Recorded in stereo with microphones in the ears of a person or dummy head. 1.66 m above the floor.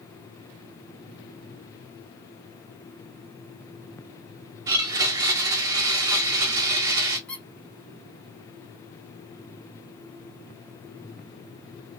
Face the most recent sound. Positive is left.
turn(degrees=5)  # may be behind; listen again after turning